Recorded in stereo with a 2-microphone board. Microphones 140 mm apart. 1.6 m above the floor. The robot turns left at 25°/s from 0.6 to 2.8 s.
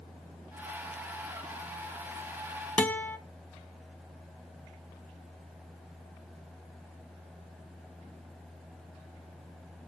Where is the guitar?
10° left (ahead or behind), 0.6 m.